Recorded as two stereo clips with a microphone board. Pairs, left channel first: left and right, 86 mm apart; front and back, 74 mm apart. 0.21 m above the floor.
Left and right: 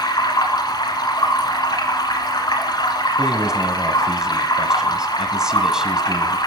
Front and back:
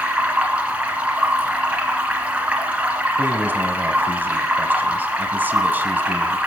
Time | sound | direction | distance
0.0 | running water | 110° left | 1.7 m
3.2 | a man speaking | 165° right | 1.1 m